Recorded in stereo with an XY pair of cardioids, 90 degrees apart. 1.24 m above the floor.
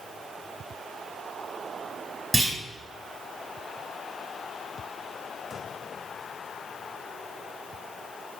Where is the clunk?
20° right, 5 m.